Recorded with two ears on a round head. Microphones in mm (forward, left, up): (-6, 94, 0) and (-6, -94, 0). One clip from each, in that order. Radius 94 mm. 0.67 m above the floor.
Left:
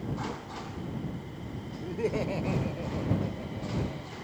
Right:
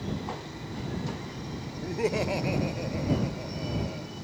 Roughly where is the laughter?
Right.